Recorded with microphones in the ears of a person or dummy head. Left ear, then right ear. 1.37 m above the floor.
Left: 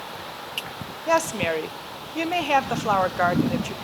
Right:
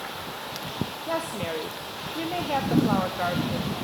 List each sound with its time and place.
1.1 s a woman speaking: 50° left (ahead or behind), 0.5 m